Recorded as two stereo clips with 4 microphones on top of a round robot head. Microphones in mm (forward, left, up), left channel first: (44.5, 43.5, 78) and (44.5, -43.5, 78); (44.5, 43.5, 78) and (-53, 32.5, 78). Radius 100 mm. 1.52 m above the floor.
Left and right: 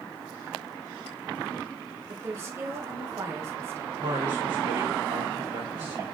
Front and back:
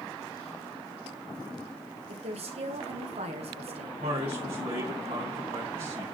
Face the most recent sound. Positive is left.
turn(degrees=-145)